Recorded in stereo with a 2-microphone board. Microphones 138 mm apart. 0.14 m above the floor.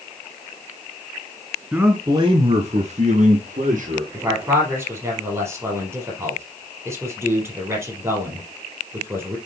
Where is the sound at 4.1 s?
20° right (ahead or behind), 4 m.